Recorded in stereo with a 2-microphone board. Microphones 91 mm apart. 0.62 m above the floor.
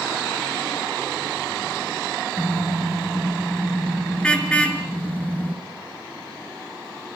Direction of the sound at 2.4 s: Centre (ahead or behind).